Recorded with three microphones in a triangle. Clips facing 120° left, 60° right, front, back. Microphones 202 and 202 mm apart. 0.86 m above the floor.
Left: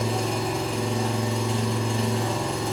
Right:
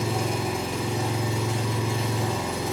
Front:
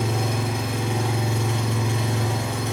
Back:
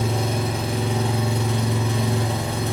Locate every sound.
0.0 s an engine running: 140° right, 0.8 m